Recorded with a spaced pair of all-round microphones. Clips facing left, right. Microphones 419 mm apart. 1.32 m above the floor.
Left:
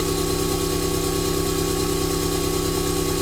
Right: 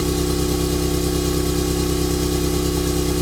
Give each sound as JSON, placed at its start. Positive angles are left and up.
{"t": 0.0, "sound": "an engine running", "side_deg": -60, "distance_m": 1.0}